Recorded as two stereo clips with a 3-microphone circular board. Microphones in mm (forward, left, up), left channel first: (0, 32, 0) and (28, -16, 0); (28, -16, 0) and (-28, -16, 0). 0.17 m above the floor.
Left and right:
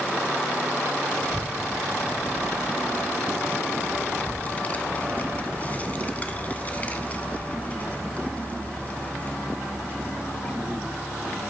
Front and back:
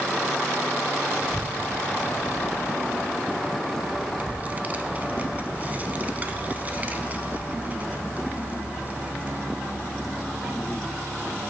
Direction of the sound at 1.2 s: 150° left.